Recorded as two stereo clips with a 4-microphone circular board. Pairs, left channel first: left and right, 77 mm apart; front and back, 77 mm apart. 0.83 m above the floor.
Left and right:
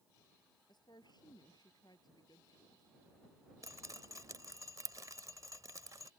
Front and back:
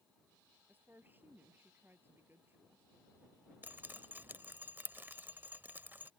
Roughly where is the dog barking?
I don't hear a dog barking.